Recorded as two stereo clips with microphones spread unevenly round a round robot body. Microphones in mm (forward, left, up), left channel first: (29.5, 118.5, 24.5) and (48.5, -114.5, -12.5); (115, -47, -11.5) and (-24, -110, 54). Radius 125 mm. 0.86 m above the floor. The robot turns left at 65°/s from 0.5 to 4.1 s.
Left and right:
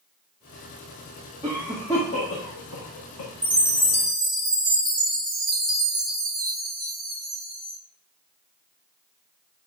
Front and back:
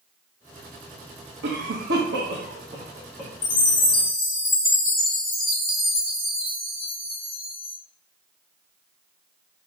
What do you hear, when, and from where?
1.4 s a cough: 150° right, 1.4 m; by 3.3 s 85° left, 1.4 m
3.4 s a chime: 35° left, 3 m; by 7.8 s 10° right, 3 m